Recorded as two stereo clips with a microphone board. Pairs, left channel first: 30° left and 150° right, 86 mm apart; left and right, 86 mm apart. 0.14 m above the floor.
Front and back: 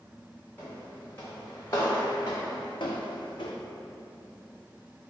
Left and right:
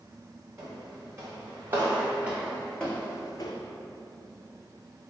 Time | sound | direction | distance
0.6 | footsteps | 40° right | 1.6 m